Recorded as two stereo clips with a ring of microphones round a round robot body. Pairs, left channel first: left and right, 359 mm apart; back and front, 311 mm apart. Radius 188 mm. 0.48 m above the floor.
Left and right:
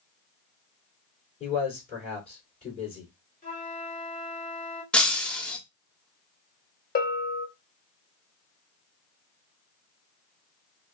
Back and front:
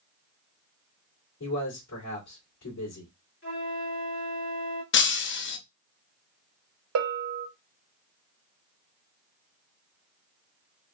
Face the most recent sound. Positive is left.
turn(degrees=30)